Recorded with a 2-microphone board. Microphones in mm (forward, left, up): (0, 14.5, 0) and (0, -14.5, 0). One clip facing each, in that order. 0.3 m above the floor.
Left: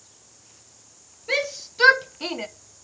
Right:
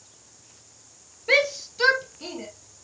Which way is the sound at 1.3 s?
25° right (ahead or behind).